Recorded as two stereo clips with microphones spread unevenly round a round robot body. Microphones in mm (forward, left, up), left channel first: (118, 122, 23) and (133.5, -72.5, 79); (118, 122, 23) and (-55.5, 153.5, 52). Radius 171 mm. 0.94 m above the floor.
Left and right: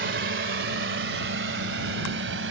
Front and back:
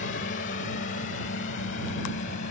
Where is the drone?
65° right; by 2.5 s 70° right.